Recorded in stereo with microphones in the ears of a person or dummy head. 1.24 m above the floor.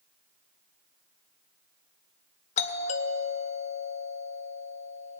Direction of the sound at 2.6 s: 35° left (ahead or behind).